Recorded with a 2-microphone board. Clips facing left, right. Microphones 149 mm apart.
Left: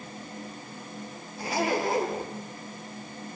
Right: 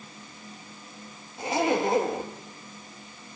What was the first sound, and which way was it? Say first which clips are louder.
A zipper: right 3 dB; 25° right (ahead or behind).